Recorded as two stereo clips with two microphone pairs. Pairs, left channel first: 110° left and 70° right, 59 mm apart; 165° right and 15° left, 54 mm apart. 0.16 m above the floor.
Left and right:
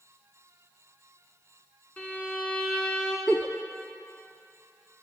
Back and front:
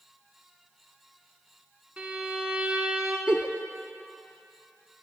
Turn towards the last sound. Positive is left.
turn(degrees=65)